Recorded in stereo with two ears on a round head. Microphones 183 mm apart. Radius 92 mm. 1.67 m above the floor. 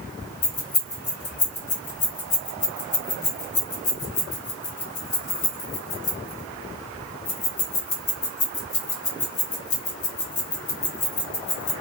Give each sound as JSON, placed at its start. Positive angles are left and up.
{"t": 0.4, "sound": "keys jangling", "side_deg": 35, "distance_m": 1.4}